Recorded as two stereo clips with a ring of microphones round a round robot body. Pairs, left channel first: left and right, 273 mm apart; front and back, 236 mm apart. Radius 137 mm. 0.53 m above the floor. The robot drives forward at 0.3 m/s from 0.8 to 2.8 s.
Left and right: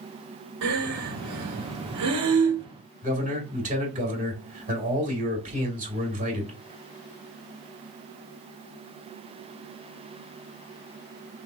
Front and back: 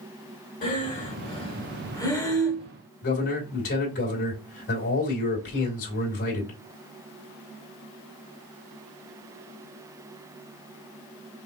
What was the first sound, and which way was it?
Breathing, 60° right.